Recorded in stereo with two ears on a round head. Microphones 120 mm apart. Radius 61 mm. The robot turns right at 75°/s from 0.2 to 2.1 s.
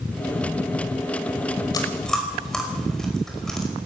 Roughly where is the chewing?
Left.